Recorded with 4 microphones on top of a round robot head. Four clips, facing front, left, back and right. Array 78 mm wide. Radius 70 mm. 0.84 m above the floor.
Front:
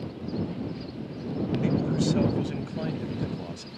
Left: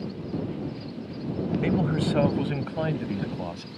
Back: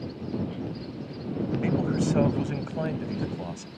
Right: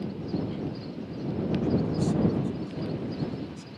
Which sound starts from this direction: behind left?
A man speaking, at 1.6 s.